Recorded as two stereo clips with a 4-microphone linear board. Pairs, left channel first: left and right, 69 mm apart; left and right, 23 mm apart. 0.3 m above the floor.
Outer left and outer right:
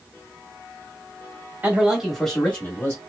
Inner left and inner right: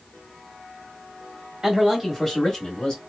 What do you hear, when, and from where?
1.6 s a man speaking: 25° right (ahead or behind), 1.2 m; by 3.0 s 30° left (ahead or behind), 1.5 m